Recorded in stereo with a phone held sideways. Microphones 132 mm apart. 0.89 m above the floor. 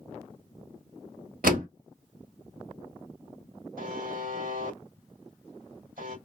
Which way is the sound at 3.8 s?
70° right (ahead or behind).